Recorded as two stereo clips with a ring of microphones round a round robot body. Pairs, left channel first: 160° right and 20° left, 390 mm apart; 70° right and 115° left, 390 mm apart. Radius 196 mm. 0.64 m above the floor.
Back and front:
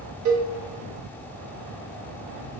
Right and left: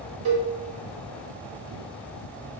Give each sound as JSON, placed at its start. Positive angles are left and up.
{"t": 0.2, "sound": "a cowbell", "azimuth_deg": 75, "distance_m": 0.7}